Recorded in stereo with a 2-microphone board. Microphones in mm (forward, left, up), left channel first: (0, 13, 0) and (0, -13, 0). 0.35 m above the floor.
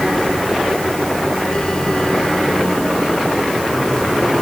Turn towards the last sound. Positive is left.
No sound to turn to.